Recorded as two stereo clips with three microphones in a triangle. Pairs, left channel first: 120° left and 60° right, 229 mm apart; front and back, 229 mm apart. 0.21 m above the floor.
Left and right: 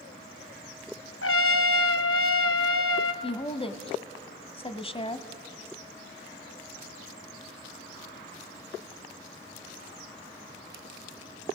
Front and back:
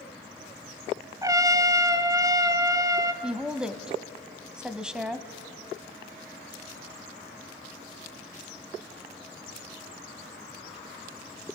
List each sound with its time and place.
1.2 s a trumpet: 105° left, 0.8 m
3.2 s a woman speaking: 95° left, 1.0 m